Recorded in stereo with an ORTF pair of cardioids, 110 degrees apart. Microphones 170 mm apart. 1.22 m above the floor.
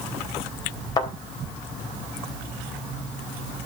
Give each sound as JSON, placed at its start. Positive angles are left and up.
{"t": 1.0, "sound": "a thud", "azimuth_deg": 25, "distance_m": 3.5}